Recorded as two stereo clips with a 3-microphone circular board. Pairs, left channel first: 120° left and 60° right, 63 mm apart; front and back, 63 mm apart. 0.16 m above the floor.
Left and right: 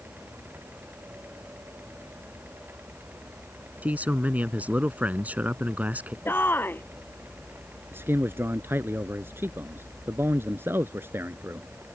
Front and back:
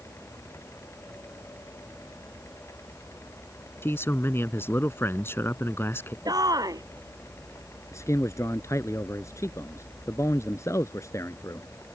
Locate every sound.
3.8 s a man speaking: 10° right
6.2 s a shout: 175° left
7.9 s a man speaking: 15° right